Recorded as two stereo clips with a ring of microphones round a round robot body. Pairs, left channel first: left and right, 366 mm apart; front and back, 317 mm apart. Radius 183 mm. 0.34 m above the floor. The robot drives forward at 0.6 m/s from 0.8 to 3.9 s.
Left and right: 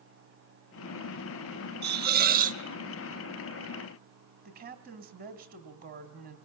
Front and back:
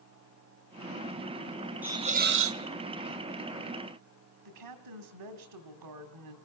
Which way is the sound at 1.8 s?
100° right.